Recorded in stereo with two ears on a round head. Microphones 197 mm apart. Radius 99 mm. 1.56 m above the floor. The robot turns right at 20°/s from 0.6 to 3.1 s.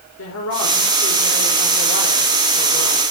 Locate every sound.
0.2 s a woman speaking: 110° left, 5 m; by 3.0 s 160° left, 5 m